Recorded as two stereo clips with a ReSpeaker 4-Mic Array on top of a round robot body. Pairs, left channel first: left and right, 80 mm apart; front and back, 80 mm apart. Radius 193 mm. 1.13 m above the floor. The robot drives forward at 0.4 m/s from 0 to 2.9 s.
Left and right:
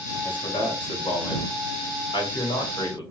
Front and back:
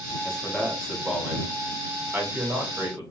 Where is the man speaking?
85° left, 1.5 m; by 3.0 s 120° left, 1.8 m.